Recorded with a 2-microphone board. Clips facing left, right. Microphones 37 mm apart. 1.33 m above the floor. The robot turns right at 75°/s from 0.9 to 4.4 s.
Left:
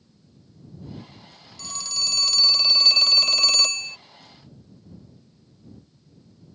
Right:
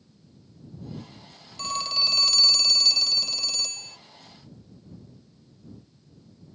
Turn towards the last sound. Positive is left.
turn(degrees=155)